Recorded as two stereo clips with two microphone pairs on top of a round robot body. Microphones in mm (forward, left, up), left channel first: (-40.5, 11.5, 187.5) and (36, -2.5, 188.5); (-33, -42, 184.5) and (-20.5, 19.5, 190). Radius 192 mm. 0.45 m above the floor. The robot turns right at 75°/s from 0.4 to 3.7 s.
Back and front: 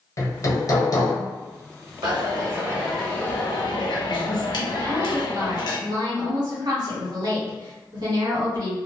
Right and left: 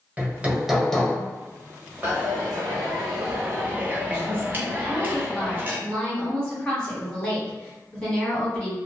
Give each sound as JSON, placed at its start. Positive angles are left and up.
{"t": 0.2, "sound": "hammering", "azimuth_deg": 145, "distance_m": 1.3}
{"t": 2.0, "sound": "a dropped coin", "azimuth_deg": 15, "distance_m": 0.7}
{"t": 4.8, "sound": "a woman speaking", "azimuth_deg": -30, "distance_m": 1.8}